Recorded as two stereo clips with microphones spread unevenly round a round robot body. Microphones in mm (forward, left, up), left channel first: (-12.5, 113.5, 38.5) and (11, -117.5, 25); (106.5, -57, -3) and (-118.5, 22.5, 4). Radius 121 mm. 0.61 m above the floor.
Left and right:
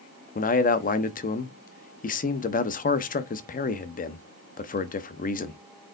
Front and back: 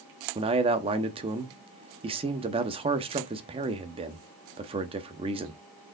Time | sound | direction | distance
0.3 | a man speaking | 110° left | 0.7 m